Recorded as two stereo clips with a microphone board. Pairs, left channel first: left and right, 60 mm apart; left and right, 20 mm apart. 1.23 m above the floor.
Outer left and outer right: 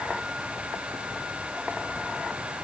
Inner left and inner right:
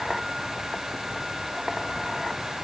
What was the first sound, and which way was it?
Only background noise.